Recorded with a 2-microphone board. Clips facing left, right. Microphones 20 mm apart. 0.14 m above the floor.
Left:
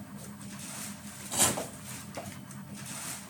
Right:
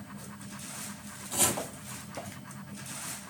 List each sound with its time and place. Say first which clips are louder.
1.3 s chopping: even; centre (ahead or behind), 3 m